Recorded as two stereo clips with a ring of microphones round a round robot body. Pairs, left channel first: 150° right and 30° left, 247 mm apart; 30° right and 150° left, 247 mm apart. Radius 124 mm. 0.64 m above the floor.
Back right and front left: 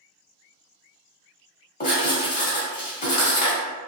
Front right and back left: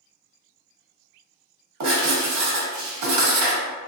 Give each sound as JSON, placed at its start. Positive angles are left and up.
{"t": 1.8, "sound": "writing", "azimuth_deg": 150, "distance_m": 1.3}